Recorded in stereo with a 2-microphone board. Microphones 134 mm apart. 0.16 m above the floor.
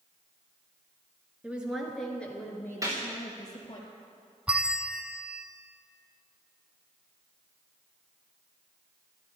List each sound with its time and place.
1.4 s a woman speaking: 10° right (ahead or behind), 2.5 m; by 3.8 s 30° left (ahead or behind), 3.5 m
2.8 s a gunshot: 25° right (ahead or behind), 3.5 m
4.5 s a bell: 10° right (ahead or behind), 0.6 m